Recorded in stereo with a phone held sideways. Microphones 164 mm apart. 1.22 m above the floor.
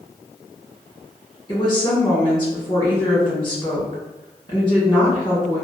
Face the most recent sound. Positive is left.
turn(degrees=30)  # may be behind; listen again after turning